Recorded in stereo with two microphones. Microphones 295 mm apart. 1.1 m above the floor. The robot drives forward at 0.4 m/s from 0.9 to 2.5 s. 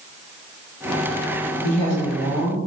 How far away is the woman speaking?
About 0.7 m.